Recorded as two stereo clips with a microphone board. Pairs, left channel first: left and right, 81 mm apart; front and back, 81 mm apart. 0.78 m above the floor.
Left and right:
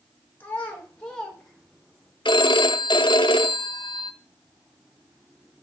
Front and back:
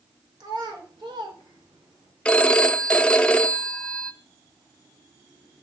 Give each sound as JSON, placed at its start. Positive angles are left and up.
{"t": 0.4, "sound": "a child speaking", "azimuth_deg": 155, "distance_m": 2.5}
{"t": 2.2, "sound": "a phone ringing", "azimuth_deg": 75, "distance_m": 0.5}